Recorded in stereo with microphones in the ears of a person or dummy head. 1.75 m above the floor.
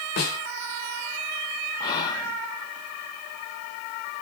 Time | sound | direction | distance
0.2 | a snare drum | 45° left (ahead or behind) | 2 m
1.8 | whispering | 20° left (ahead or behind) | 0.5 m